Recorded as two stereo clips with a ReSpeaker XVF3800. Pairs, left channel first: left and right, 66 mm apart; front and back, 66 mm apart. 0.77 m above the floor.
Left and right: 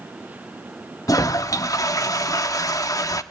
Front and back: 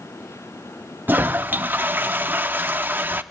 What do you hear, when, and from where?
1.1 s a toilet flushing: 120° left, 0.7 m